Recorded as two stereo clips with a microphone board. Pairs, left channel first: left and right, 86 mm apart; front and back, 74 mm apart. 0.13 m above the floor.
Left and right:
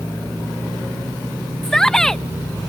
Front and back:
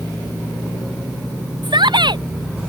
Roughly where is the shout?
Behind.